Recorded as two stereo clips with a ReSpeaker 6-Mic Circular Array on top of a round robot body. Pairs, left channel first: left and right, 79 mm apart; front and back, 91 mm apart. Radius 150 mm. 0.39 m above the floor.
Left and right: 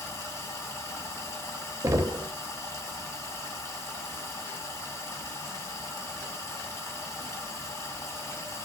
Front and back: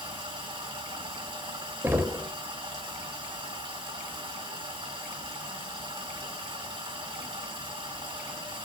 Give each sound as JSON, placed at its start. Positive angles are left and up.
{"t": 0.0, "sound": "running water", "azimuth_deg": 150, "distance_m": 1.9}
{"t": 1.8, "sound": "knocking", "azimuth_deg": -125, "distance_m": 0.9}